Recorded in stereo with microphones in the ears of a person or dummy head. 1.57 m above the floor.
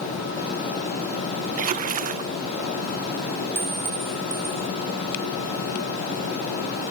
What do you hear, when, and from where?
1.6 s a splash: 40° right (ahead or behind)
3.5 s a clink: 5° right (ahead or behind)